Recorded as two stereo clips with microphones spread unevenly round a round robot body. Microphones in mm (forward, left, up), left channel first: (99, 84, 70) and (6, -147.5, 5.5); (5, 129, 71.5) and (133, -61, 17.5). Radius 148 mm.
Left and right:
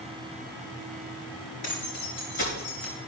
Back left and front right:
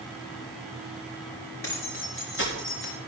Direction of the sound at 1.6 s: 95° left.